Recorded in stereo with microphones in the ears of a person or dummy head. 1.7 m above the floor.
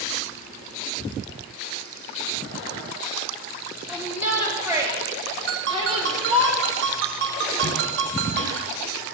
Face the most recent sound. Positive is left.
turn(degrees=-65)  # may be behind; listen again after turning